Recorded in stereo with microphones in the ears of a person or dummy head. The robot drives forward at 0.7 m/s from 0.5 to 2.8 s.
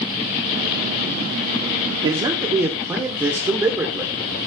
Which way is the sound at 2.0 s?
30° right (ahead or behind).